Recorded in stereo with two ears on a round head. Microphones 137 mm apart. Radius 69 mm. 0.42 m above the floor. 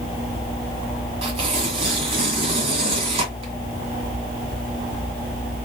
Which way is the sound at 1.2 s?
40° right (ahead or behind).